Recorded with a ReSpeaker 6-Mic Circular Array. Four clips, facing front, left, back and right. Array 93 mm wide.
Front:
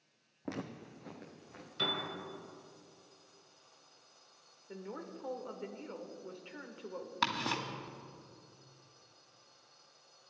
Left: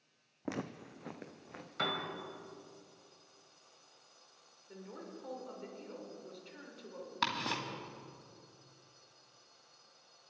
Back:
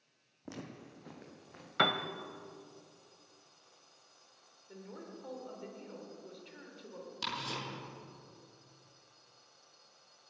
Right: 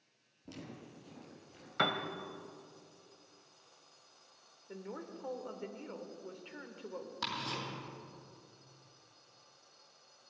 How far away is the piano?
About 1.0 m.